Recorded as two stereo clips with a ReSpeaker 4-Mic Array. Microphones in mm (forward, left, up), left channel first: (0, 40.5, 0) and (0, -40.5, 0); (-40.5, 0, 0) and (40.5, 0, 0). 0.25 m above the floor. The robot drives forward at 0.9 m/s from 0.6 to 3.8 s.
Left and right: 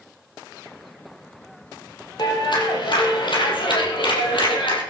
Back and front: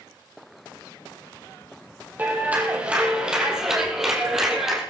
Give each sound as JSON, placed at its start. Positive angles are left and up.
{"t": 2.2, "sound": "a clap", "azimuth_deg": 70, "distance_m": 5.0}